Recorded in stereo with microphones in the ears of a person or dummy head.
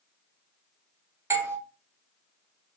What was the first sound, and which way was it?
A doorbell, 10° right (ahead or behind).